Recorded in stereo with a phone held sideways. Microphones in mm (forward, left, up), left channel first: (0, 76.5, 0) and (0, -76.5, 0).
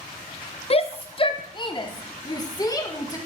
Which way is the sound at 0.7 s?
40° left (ahead or behind).